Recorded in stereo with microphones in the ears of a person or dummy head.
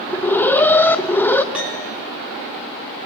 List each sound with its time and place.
0.1 s an alarm: 10° left (ahead or behind), 0.8 m
1.5 s a piano: 5° right (ahead or behind), 5.5 m